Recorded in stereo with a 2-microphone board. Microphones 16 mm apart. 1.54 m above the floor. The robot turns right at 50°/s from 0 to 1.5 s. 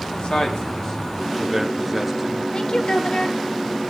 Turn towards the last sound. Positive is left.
turn(degrees=45)  # may be behind; listen again after turning